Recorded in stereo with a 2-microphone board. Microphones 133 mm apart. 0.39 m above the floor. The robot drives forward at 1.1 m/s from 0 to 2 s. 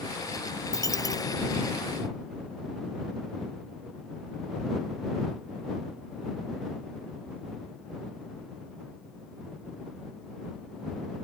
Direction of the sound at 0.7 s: 25° left (ahead or behind).